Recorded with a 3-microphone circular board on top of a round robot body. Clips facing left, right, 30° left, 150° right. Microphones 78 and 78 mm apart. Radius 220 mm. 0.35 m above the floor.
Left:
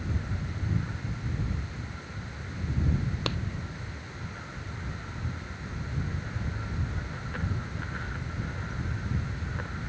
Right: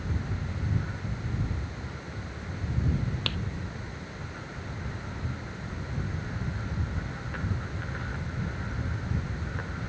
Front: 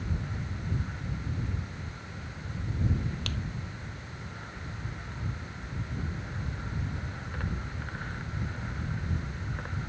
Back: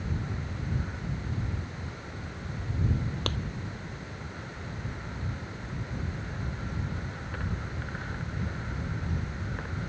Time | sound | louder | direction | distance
3.3 | a clap | left 3 dB, back 5 dB | 160° left | ?